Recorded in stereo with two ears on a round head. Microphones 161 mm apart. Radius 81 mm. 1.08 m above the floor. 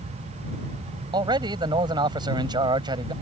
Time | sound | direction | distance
1.1 | a man speaking | 25° right (ahead or behind) | ?